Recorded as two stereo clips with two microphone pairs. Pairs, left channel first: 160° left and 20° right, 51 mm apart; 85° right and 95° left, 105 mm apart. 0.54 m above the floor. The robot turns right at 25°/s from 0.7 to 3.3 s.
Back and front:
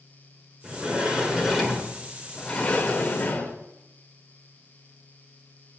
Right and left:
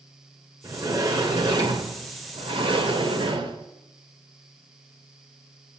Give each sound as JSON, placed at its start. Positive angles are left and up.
{"t": 0.6, "sound": "a sliding door", "azimuth_deg": 40, "distance_m": 2.0}